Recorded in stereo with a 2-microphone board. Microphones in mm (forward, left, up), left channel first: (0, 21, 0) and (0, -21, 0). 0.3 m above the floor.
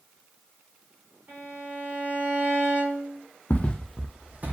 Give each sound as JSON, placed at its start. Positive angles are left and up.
{"t": 1.3, "sound": "a violin", "side_deg": -50, "distance_m": 1.3}
{"t": 3.5, "sound": "footsteps", "side_deg": 40, "distance_m": 0.6}